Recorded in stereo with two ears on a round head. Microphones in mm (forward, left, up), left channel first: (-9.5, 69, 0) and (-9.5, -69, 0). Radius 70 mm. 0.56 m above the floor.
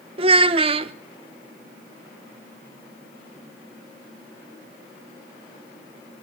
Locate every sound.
0.2 s a child speaking: 35° right (ahead or behind), 0.6 m